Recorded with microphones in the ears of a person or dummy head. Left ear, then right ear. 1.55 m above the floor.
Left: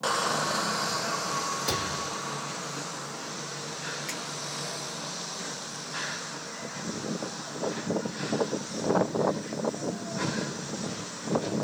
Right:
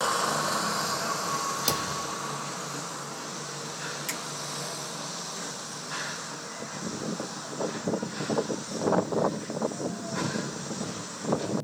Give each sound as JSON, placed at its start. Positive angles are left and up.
{"t": 1.7, "sound": "a thud", "side_deg": -45, "distance_m": 1.8}
{"t": 4.1, "sound": "a finger snap", "side_deg": -15, "distance_m": 1.3}